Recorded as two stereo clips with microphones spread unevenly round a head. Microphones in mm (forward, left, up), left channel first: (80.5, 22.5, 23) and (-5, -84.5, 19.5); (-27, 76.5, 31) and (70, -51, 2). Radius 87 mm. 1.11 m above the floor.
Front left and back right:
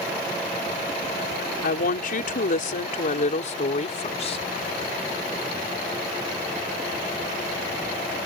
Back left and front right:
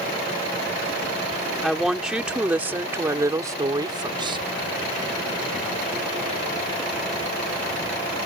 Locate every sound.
1.6 s a woman speaking: 40° left; by 4.4 s 10° left